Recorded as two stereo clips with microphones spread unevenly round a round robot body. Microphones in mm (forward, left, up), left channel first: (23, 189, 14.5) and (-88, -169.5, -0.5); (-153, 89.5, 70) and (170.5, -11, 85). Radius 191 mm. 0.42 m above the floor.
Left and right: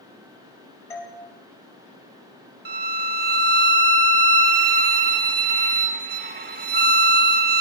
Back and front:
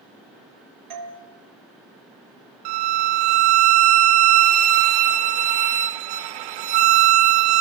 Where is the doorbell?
10° right, 2.5 m.